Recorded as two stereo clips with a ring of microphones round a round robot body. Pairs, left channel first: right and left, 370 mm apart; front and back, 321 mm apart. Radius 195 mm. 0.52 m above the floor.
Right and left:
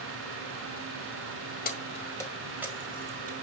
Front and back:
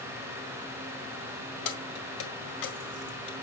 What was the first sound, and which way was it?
Keys jangling, 25° right.